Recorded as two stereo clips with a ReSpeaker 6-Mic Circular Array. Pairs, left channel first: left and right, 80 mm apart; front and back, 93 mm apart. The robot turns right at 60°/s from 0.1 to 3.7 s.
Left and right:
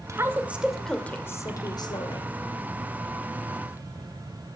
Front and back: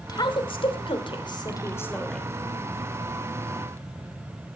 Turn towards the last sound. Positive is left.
turn(degrees=175)